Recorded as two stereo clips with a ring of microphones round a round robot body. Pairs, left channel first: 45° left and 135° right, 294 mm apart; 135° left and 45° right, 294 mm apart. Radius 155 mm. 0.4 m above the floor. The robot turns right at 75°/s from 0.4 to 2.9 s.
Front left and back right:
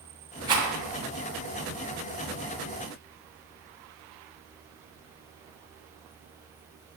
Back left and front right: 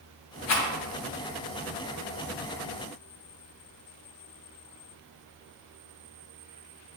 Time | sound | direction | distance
0.5 | a rattle | 150° left | 3.5 m